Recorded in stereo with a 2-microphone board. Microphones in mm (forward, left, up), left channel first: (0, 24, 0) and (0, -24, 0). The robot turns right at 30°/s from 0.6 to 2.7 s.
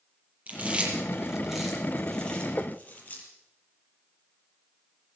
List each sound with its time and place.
0.5 s chewing: 35° right (ahead or behind), 7 m; by 3.2 s 30° left (ahead or behind), 7 m
2.6 s knocking: 55° left (ahead or behind), 1.7 m; by 2.8 s 50° left (ahead or behind), 1.7 m